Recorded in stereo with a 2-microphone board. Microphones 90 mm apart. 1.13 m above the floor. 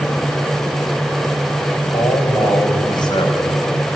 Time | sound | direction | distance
1.9 | a man speaking | 50° left (ahead or behind) | 5.5 m